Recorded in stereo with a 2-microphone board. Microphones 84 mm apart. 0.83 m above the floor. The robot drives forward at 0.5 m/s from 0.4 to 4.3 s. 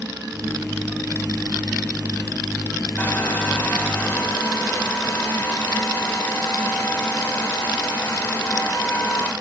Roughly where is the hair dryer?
Left.